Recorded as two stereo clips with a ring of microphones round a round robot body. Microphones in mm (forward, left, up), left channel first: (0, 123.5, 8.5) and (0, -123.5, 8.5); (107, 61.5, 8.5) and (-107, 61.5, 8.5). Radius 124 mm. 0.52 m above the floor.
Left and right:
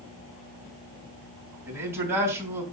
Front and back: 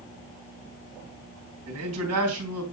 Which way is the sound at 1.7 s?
170° right.